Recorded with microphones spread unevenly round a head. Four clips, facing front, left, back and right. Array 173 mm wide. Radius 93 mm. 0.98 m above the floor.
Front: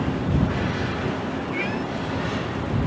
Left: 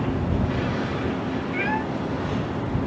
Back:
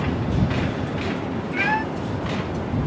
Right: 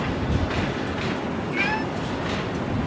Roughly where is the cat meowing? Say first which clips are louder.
Even, back 4 dB; behind.